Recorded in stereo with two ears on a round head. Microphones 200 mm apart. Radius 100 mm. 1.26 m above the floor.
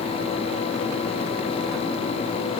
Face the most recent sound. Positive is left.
No sound to turn to.